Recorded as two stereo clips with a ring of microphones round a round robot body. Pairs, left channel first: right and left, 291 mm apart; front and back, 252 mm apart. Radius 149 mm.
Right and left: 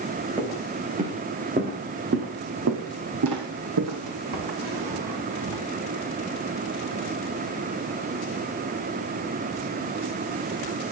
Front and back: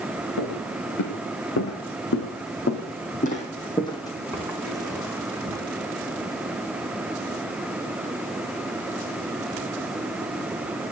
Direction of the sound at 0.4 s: 15° left.